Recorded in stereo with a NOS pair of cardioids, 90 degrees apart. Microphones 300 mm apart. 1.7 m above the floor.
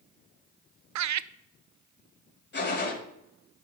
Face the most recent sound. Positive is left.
turn(degrees=35)